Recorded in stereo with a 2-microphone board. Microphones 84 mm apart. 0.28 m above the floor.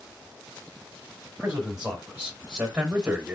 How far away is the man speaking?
About 1.1 m.